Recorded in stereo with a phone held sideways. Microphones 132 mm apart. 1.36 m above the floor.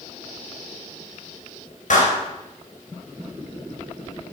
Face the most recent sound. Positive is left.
turn(degrees=65)  # may be behind; listen again after turning